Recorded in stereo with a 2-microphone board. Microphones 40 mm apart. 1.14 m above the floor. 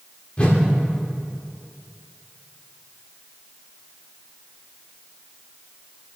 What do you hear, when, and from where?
0.4 s a whoosh: 30° left (ahead or behind), 1.3 m